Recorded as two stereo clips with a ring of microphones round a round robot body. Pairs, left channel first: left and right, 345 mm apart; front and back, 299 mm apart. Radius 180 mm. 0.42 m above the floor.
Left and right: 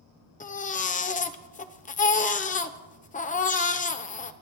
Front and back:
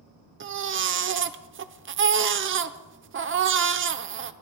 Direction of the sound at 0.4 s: 150° left.